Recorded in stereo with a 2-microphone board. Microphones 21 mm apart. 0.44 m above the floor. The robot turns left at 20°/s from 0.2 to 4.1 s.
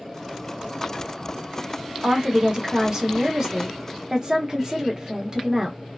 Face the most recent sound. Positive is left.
turn(degrees=-100)